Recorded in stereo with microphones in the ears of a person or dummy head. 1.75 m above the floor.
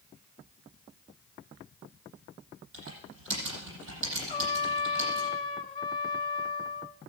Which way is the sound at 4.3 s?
30° left (ahead or behind).